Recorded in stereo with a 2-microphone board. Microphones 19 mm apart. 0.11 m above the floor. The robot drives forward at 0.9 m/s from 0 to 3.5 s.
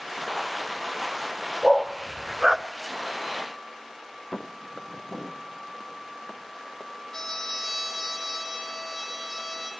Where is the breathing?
No breathing in this recording.